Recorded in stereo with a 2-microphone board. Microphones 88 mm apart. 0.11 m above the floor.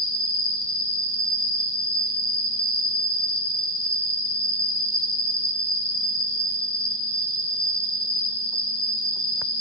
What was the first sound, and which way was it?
An insect, 10° left (ahead or behind).